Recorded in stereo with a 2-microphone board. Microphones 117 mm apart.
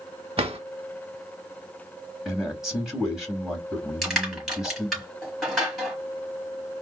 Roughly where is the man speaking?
Centre.